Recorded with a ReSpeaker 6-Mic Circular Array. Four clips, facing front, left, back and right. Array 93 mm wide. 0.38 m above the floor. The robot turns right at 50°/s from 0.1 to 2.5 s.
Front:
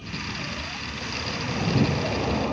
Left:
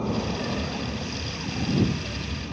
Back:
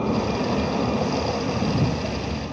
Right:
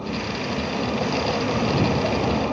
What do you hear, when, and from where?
0.0 s a vehicle: 175° left; by 2.5 s 65° right